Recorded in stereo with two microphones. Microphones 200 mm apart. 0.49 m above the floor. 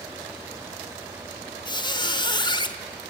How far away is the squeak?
About 0.6 m.